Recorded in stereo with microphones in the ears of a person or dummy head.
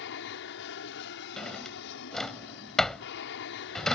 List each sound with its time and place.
0.0 s an aircraft: 65° left (ahead or behind)
1.4 s a drawer: 5° left (ahead or behind)